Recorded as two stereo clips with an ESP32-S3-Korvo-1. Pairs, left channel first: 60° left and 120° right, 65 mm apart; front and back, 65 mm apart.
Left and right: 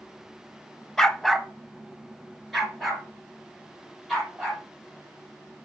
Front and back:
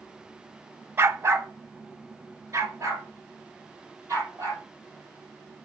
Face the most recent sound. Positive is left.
turn(degrees=150)